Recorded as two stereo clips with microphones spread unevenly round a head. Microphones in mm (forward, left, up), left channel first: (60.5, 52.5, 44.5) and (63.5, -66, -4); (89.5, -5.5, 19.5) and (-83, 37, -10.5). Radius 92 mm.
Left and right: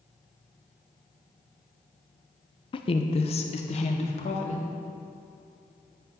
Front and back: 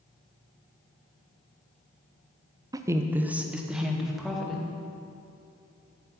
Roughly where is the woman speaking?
Left.